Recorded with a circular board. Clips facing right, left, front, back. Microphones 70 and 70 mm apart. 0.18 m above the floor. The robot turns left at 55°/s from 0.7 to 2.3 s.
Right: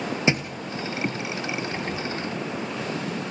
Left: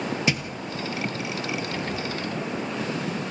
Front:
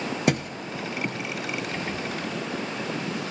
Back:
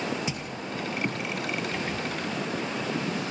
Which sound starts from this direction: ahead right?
A thud, at 0.3 s.